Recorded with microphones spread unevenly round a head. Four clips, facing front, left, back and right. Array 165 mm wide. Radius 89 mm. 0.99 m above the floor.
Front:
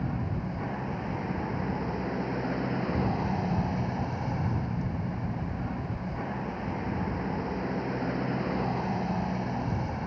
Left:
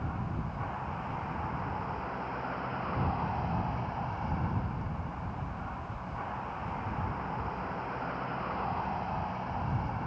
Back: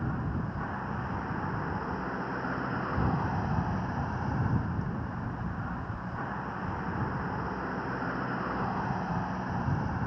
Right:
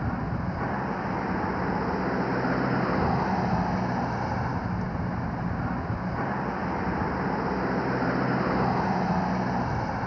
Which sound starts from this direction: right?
A vehicle, at 0.0 s.